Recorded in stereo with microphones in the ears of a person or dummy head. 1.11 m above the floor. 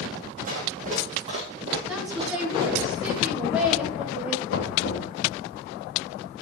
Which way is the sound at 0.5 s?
45° right (ahead or behind).